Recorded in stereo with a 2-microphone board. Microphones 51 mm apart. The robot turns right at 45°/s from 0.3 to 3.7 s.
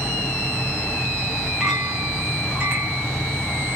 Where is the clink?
170° right, 1.9 m; by 3.1 s 105° right, 1.9 m.